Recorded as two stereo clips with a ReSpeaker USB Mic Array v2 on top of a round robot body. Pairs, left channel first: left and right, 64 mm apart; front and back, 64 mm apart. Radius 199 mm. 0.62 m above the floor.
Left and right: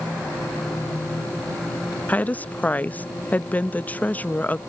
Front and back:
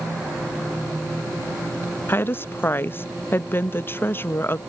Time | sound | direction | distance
2.1 | a woman speaking | 40° left | ?